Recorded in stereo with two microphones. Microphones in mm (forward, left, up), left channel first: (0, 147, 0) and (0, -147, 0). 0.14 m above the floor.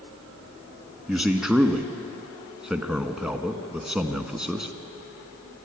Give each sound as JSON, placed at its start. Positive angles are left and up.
{"t": 1.1, "sound": "a man speaking", "side_deg": -5, "distance_m": 1.2}